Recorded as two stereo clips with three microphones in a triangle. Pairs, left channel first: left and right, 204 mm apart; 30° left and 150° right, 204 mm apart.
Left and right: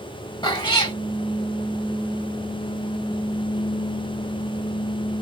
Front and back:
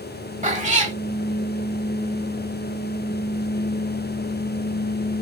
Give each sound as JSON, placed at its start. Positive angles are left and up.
{"t": 0.4, "sound": "a cat meowing", "azimuth_deg": 160, "distance_m": 0.8}